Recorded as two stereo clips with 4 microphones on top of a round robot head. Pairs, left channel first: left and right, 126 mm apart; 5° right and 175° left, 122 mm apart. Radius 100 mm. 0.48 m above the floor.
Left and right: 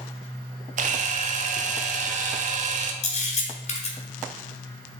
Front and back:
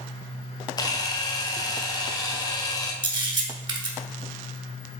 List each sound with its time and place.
0.8 s a camera shutter: 65° right, 0.8 m
3.0 s a camera shutter: 120° left, 2 m